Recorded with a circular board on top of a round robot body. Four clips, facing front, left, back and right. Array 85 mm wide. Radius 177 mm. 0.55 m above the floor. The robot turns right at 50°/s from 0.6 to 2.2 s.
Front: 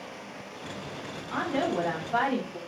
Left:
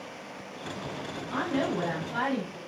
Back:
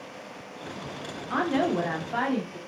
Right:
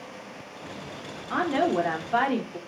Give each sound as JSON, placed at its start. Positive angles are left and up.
{"t": 1.3, "sound": "a woman speaking", "azimuth_deg": -130, "distance_m": 2.5}